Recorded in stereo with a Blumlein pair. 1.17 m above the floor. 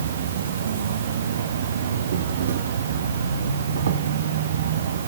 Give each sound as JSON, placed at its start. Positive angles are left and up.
{"t": 0.0, "sound": "an insect", "azimuth_deg": -65, "distance_m": 0.7}